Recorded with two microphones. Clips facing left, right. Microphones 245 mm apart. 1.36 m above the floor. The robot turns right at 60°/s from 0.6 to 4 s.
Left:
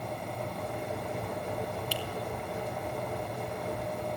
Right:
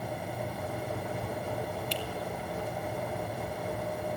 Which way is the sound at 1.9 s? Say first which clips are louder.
Right 1 dB; 10° left (ahead or behind).